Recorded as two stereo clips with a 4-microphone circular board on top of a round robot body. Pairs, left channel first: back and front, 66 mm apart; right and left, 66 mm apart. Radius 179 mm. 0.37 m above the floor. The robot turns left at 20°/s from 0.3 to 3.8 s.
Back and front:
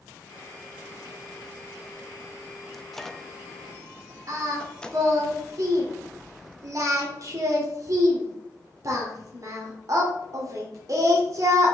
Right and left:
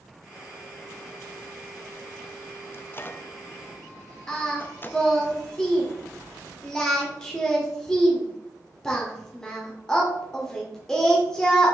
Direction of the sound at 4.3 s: 10° right.